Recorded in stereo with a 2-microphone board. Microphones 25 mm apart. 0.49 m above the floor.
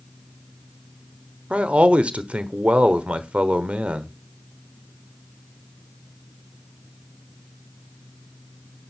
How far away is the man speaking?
About 1.2 m.